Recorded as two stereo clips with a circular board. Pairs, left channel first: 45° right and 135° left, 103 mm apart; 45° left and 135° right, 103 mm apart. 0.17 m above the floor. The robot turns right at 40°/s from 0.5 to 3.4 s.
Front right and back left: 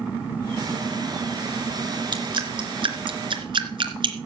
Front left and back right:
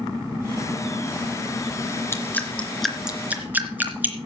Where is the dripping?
105° left, 2.5 m; by 4.2 s 155° left, 2.5 m.